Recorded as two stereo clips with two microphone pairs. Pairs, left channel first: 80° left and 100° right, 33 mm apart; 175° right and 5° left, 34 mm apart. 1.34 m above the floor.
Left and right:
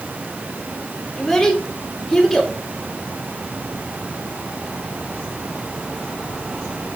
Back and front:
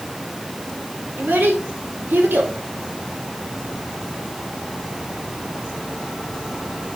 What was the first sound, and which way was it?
A child speaking, 5° left.